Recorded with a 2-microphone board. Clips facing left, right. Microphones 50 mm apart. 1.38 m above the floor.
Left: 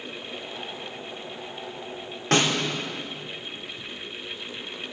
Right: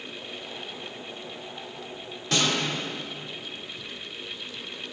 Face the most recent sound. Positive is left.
turn(degrees=50)  # may be behind; listen again after turning